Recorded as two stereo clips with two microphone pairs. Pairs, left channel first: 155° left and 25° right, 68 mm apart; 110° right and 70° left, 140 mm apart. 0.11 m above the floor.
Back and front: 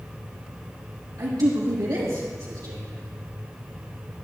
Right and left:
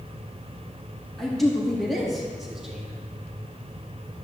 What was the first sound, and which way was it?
A man speaking, 25° right.